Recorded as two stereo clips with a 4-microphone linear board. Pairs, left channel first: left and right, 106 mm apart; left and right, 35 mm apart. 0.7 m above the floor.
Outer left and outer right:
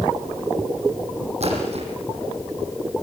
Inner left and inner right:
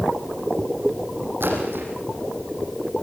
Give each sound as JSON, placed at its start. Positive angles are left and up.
{"t": 1.4, "sound": "a splash", "side_deg": -80, "distance_m": 6.5}